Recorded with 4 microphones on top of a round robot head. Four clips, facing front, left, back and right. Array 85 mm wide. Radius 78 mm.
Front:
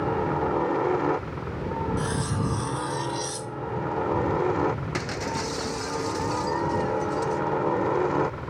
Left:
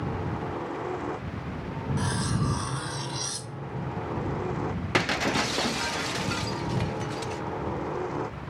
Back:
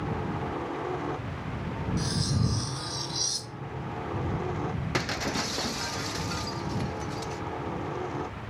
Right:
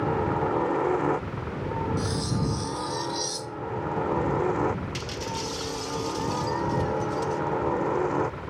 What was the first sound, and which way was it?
A helicopter, 40° right.